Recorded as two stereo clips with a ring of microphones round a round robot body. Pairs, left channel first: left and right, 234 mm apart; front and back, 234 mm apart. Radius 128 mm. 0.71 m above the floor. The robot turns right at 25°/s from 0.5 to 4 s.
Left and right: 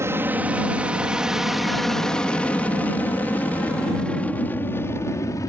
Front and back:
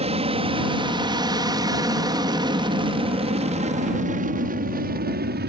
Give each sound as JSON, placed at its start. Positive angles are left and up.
{"t": 0.0, "sound": "an aircraft", "azimuth_deg": -155}